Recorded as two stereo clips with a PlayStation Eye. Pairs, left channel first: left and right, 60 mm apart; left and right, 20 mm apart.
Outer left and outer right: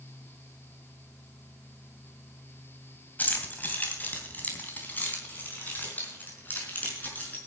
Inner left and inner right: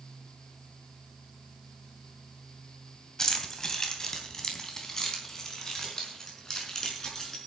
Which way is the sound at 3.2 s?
30° left (ahead or behind).